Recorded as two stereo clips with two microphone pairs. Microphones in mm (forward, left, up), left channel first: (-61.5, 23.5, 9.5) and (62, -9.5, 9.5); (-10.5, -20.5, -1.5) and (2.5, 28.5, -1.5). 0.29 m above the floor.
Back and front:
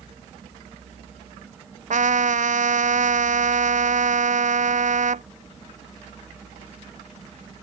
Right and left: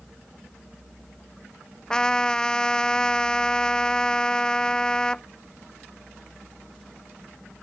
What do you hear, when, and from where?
1.9 s a trumpet: 30° right